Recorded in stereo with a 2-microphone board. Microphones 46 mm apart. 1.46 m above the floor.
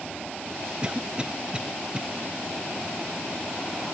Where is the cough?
20° right (ahead or behind), 0.7 m.